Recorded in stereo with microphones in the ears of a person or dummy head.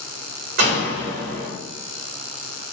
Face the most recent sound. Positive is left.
turn(degrees=-55)  # may be behind; listen again after turning